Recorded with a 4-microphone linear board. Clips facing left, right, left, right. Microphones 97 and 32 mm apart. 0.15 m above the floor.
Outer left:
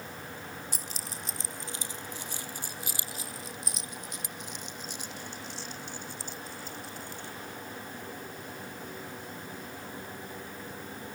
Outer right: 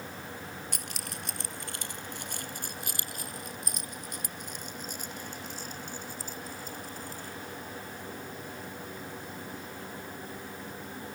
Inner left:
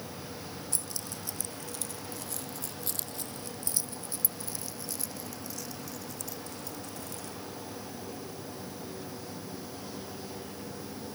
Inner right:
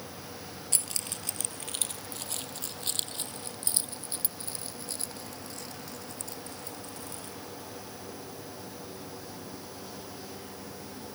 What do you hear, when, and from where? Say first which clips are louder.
0.7 s keys jangling: outer right 1 dB, inner right 2 dB; 70° right (ahead or behind); by 7.3 s 45° right (ahead or behind)